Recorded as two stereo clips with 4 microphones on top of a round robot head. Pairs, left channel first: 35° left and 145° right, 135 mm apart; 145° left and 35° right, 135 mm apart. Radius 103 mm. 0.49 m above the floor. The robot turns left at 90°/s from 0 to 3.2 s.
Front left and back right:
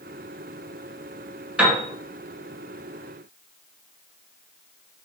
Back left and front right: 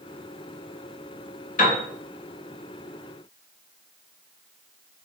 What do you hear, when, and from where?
1.6 s a piano: 135° left, 3 m; by 1.8 s 115° left, 3 m